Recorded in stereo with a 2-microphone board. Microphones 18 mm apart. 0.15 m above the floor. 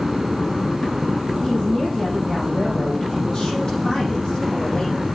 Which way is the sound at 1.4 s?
35° left (ahead or behind).